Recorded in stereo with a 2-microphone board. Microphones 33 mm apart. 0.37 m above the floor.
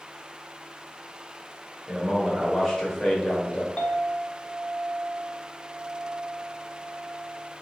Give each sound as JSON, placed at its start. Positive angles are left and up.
{"t": 1.9, "sound": "a man speaking", "side_deg": -5, "distance_m": 1.0}
{"t": 3.8, "sound": "a clink", "side_deg": 40, "distance_m": 0.6}